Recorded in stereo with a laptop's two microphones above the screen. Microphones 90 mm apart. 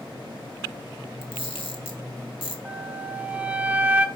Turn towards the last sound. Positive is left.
turn(degrees=-20)  # may be behind; listen again after turning